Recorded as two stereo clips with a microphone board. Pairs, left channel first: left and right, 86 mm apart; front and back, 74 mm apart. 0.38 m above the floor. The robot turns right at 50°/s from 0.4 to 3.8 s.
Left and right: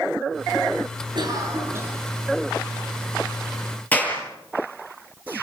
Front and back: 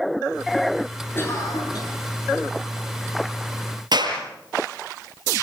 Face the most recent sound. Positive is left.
turn(degrees=160)